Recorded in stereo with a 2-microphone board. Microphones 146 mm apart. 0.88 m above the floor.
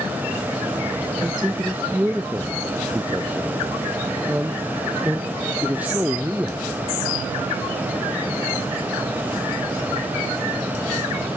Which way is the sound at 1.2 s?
10° right (ahead or behind).